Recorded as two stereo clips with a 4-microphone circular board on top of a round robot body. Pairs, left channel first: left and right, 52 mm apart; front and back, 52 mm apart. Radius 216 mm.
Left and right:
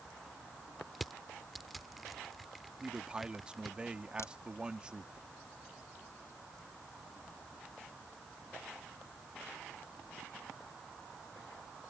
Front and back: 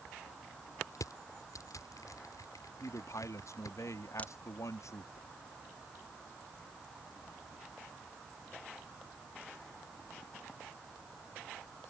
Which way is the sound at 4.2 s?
60° left.